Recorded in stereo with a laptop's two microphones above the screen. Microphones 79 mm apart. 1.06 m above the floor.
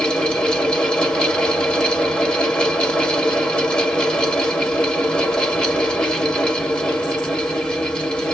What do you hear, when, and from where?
0.0 s a fan: 15° left (ahead or behind), 1.1 m